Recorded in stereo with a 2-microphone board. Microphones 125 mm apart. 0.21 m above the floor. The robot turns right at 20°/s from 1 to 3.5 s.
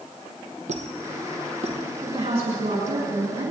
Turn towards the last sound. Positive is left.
turn(degrees=-85)